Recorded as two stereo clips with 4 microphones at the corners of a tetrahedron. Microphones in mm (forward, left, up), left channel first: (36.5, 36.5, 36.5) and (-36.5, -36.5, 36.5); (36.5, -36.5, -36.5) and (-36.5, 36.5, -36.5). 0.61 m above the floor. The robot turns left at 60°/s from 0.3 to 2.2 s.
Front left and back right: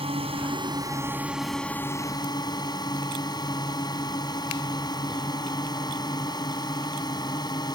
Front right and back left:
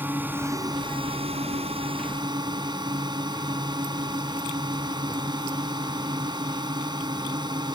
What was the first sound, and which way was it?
A drone, 155° right.